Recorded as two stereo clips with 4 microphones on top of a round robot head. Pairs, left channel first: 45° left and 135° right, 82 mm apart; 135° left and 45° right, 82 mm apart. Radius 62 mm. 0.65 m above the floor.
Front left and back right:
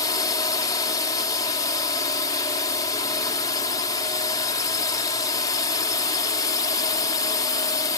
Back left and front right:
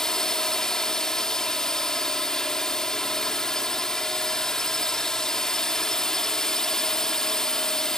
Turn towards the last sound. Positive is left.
turn(degrees=50)